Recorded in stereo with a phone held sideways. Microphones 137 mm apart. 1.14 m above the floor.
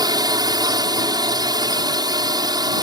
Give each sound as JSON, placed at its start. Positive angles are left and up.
{"t": 0.0, "sound": "a drone", "side_deg": -30}